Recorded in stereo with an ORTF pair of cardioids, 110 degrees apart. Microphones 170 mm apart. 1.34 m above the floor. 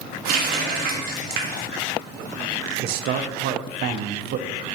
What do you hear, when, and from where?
0.2 s a running tap: 65° right, 1.4 m
2.8 s a man speaking: 65° right, 0.6 m